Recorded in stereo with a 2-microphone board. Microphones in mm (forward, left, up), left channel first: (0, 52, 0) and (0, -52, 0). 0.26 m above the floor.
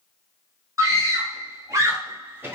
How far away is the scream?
About 1.8 m.